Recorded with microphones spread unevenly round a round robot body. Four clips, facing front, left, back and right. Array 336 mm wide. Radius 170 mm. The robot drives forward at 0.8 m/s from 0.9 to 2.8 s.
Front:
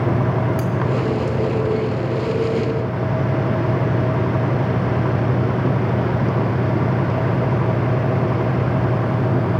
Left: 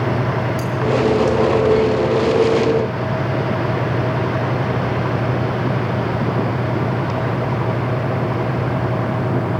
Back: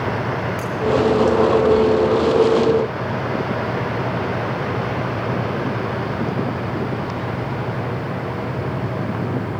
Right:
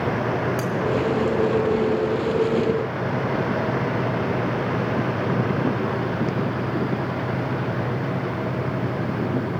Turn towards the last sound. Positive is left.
turn(degrees=-150)